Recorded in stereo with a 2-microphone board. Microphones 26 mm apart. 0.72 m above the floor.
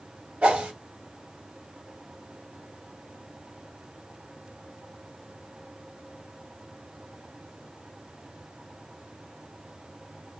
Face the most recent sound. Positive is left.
turn(degrees=-65)  # may be behind; listen again after turning